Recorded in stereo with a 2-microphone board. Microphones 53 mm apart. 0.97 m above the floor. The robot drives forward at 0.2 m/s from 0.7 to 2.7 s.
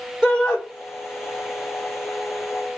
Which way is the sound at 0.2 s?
5° right (ahead or behind).